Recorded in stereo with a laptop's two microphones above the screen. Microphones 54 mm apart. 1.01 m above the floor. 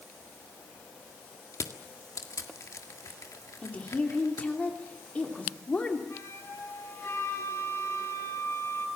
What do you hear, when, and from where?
1.5 s crushing: 75° left (ahead or behind), 1.7 m
3.6 s a woman speaking: 25° left (ahead or behind), 2.5 m
6.1 s a flute: 55° left (ahead or behind), 10 m